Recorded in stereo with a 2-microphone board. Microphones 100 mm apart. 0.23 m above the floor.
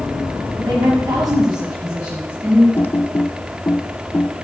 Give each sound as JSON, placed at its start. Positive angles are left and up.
{"t": 0.6, "sound": "a woman speaking", "side_deg": -45, "distance_m": 2.0}
{"t": 2.8, "sound": "typing on a keyboard", "side_deg": 25, "distance_m": 0.6}